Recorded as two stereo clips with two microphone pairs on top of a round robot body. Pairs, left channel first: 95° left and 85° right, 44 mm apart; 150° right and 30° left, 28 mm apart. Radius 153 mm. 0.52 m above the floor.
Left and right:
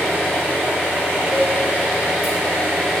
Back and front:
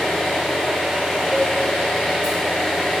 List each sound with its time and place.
0.0 s an engine running: 140° left, 1.7 m
1.2 s a cowbell: 65° right, 1.3 m